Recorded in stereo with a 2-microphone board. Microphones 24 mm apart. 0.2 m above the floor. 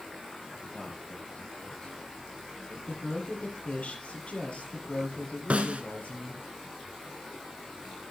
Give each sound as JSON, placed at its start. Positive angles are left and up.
{"t": 0.7, "sound": "a man speaking", "side_deg": 65, "distance_m": 7.5}
{"t": 2.9, "sound": "a woman speaking", "side_deg": 55, "distance_m": 5.5}
{"t": 5.5, "sound": "a snare drum", "side_deg": -65, "distance_m": 1.2}